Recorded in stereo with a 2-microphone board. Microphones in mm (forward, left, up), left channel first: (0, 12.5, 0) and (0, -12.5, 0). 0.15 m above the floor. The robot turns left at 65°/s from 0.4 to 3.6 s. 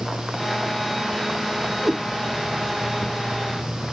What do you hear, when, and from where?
1.8 s a cat meowing: 60° right (ahead or behind), 1.2 m; by 2.0 s 65° right (ahead or behind), 1.2 m